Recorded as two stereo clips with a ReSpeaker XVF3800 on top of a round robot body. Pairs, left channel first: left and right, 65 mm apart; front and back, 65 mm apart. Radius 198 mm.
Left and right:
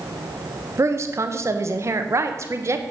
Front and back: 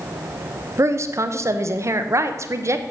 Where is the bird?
No bird in this recording.